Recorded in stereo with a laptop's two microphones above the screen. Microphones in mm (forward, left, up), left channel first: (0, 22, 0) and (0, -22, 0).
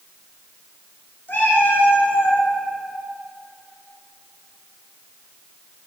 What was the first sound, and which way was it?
A cat meowing, 50° left (ahead or behind).